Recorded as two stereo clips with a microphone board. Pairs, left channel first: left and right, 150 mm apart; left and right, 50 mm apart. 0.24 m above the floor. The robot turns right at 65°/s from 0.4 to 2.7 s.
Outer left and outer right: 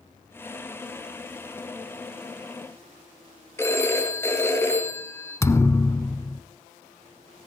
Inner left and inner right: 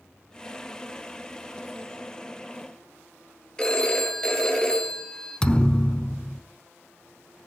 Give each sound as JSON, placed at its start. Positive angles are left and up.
{"t": 3.6, "sound": "a phone ringing", "side_deg": 15, "distance_m": 2.0}
{"t": 5.4, "sound": "a thud", "side_deg": 20, "distance_m": 0.7}